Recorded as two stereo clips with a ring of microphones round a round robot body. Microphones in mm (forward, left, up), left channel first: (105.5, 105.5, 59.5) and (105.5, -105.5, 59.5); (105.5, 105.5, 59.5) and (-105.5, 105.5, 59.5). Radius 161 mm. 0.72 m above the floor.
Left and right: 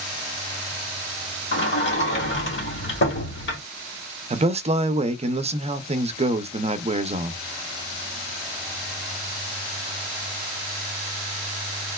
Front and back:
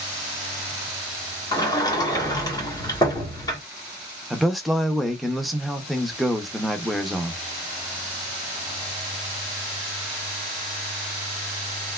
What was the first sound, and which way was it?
A sliding door, 70° left.